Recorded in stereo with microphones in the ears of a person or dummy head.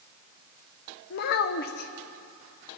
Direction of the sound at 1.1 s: 55° left (ahead or behind).